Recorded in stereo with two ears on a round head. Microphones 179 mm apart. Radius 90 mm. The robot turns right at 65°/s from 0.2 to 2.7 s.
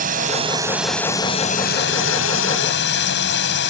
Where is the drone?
40° right (ahead or behind); by 3.7 s 65° left (ahead or behind).